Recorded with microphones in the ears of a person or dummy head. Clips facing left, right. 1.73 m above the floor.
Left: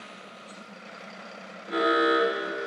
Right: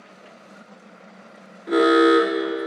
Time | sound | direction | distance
1.7 | an alarm | 60° right (ahead or behind) | 0.8 m